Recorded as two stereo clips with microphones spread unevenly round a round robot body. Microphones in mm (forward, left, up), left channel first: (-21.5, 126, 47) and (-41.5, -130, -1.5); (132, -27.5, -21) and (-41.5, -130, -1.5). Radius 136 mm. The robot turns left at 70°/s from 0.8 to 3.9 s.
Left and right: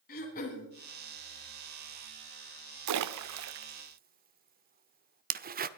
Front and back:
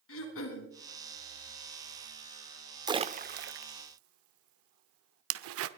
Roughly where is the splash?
Right.